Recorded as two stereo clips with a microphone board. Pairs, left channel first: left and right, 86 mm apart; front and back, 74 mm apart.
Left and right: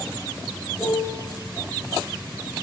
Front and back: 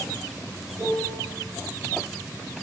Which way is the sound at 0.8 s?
165° right.